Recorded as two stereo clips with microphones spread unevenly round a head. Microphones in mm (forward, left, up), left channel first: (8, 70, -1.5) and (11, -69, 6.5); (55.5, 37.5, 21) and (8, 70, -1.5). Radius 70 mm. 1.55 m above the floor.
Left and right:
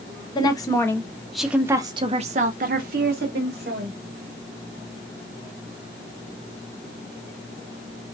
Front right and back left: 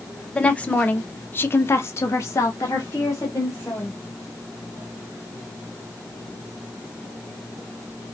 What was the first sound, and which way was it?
A woman speaking, 30° left.